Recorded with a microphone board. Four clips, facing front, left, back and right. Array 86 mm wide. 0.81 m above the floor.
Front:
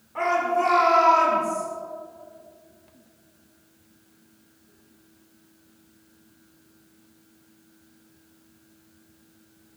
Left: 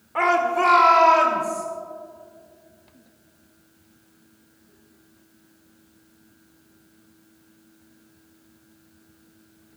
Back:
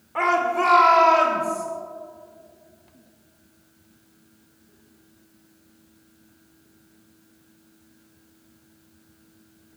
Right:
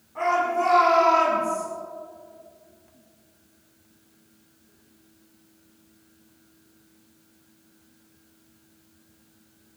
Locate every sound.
0.1 s a shout: 120° left, 1.9 m; by 1.6 s 125° left, 3 m